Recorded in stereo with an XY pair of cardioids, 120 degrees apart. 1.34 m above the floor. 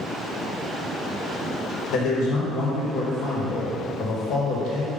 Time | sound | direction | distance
1.9 | a man speaking | 65° left | 1.8 m